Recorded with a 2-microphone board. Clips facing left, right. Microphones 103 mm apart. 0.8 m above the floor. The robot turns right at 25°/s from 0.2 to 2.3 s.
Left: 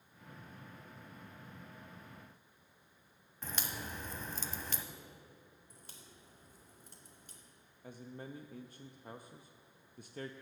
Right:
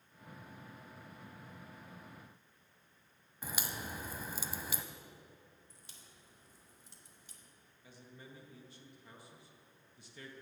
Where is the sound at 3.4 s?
10° right (ahead or behind), 0.7 m.